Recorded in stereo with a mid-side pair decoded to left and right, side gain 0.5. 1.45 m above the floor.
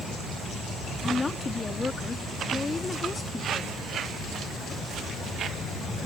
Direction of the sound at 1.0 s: 25° left.